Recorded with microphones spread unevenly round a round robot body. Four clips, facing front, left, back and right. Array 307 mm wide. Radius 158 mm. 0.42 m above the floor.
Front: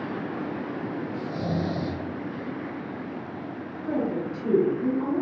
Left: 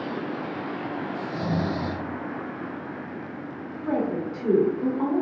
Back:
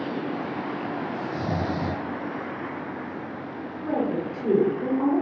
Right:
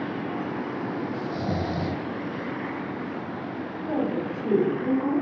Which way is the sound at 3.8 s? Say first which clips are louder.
Left 1 dB, back 1 dB; 125° left.